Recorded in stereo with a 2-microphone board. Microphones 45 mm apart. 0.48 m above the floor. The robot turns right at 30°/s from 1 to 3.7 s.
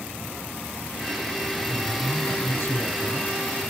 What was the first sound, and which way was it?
A man speaking, 55° left.